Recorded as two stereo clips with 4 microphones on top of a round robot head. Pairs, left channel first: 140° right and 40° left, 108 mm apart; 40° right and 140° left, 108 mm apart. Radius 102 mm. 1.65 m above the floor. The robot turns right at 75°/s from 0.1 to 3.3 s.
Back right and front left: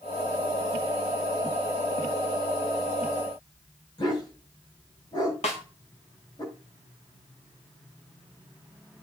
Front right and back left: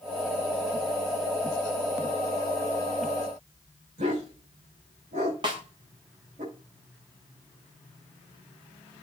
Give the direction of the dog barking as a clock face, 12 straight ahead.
7 o'clock.